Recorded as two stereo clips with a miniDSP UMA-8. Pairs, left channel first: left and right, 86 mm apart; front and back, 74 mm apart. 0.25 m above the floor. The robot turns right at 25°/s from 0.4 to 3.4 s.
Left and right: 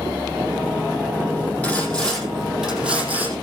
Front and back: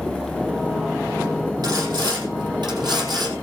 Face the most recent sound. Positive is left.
turn(degrees=-155)